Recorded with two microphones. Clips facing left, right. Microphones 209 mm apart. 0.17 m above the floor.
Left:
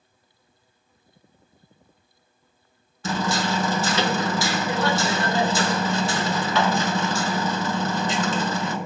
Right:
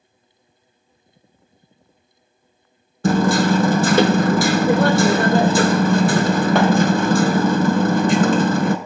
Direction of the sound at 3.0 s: 55° right (ahead or behind).